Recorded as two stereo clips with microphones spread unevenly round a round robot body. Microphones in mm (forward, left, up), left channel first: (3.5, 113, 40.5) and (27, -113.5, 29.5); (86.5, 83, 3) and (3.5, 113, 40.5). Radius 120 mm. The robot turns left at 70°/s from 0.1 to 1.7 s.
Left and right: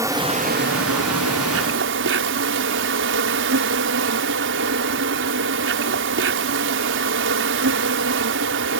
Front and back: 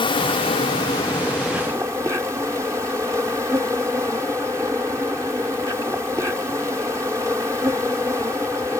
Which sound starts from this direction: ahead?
An insect, at 0.0 s.